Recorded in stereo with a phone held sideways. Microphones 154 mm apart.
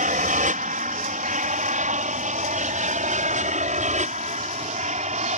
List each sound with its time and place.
0.0 s an aircraft: 60° right (ahead or behind); by 5.4 s 50° right (ahead or behind)